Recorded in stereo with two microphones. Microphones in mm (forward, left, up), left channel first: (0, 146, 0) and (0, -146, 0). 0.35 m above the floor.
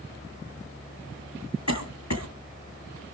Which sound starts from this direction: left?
A cough, at 1.7 s.